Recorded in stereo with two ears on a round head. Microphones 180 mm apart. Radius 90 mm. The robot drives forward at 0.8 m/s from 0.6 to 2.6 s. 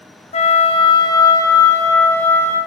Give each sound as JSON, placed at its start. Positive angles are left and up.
{"t": 0.3, "sound": "a flute", "side_deg": 30, "distance_m": 0.7}